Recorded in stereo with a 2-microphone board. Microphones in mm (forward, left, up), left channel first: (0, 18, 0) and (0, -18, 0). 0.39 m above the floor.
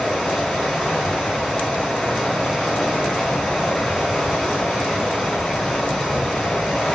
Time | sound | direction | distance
0.0 | running water | 5° left (ahead or behind) | 4 m